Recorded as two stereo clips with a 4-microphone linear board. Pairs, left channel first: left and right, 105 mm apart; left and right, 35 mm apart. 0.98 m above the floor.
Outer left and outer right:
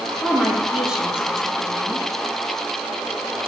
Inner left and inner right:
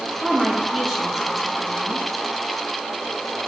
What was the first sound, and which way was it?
A woman speaking, 5° right (ahead or behind).